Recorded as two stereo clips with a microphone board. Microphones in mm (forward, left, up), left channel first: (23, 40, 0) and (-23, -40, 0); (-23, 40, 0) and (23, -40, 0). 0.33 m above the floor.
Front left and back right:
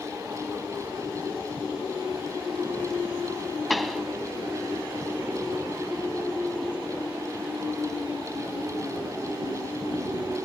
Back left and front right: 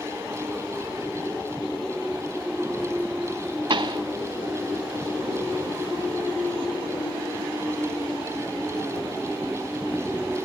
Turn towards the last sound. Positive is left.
turn(degrees=-30)